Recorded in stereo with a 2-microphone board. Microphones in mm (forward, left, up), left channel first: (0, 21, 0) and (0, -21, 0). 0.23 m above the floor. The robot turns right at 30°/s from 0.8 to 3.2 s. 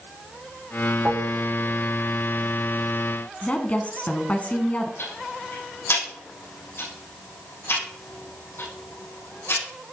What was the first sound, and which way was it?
Dishes clattering, 35° right (ahead or behind).